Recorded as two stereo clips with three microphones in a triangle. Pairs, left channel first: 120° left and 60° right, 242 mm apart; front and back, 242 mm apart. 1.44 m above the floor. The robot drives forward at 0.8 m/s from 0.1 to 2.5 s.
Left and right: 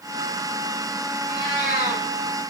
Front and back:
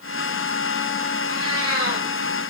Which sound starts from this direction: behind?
A cat meowing, at 1.3 s.